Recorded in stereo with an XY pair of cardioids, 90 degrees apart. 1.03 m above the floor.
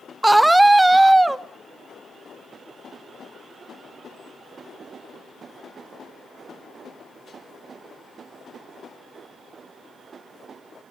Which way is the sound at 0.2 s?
10° right.